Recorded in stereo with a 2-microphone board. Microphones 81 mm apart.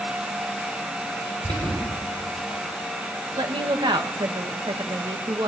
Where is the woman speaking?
80° right, 2.5 m.